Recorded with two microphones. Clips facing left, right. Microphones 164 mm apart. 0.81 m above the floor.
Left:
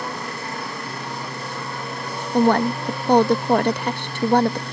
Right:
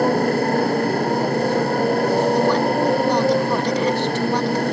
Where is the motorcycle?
50° right (ahead or behind); by 4.7 s 55° right (ahead or behind).